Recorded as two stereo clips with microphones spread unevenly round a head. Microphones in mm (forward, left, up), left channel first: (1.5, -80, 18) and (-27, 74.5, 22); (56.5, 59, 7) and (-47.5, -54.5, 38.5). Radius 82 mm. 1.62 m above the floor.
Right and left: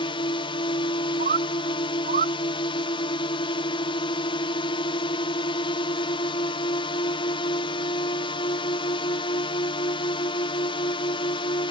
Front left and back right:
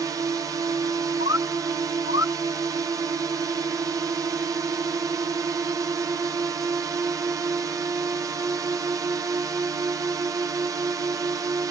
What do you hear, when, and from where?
0.0 s a drone: 60° right
1.2 s a bird: 55° left